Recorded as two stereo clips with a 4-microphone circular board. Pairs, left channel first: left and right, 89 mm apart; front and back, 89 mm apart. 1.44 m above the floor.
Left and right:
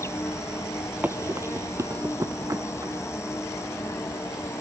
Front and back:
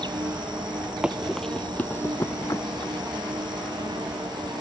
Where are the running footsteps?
115° right; by 3.1 s 40° right.